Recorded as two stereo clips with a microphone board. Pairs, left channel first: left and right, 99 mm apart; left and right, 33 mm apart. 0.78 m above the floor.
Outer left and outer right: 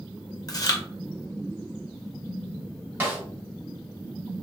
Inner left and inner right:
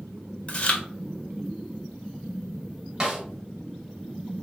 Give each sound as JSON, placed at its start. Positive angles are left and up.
{"t": 0.5, "sound": "chewing", "side_deg": 40, "distance_m": 0.7}
{"t": 3.0, "sound": "a snare drum", "side_deg": -15, "distance_m": 1.4}